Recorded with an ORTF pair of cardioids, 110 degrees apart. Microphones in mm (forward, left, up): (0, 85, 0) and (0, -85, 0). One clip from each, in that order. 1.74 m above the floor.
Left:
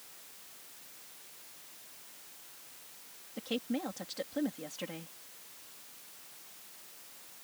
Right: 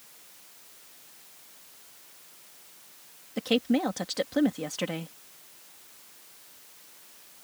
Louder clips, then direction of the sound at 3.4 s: Right 10 dB; 55° right.